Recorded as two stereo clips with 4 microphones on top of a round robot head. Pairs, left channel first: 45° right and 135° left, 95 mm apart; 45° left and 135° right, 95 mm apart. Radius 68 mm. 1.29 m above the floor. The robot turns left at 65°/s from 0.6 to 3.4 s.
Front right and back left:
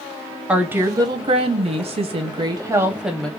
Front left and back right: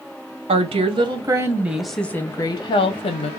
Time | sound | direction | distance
0.5 | a woman speaking | 145° right | 1.0 m